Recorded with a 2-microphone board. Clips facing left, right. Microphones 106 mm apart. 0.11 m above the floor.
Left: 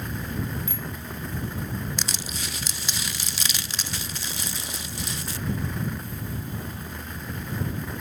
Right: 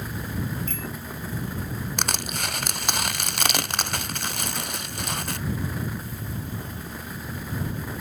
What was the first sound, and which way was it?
A bicycle bell, 10° left (ahead or behind).